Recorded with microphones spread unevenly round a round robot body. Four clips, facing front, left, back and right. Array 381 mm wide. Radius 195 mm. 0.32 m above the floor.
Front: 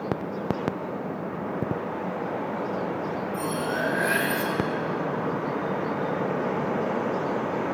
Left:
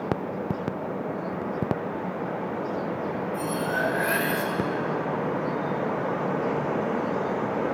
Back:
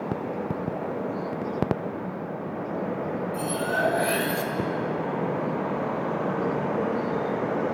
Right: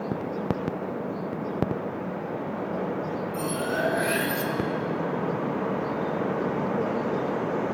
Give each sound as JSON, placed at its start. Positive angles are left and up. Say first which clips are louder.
{"t": 3.3, "sound": "cutlery clinking", "louder": "even, back 1 dB", "azimuth_deg": -155, "distance_m": 1.2}